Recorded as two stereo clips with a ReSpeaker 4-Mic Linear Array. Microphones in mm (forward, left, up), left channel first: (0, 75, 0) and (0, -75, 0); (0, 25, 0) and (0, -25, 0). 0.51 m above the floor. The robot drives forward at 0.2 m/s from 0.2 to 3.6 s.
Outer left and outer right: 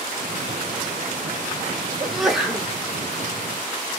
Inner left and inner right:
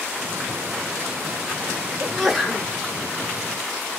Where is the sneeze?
Centre (ahead or behind), 1.5 m.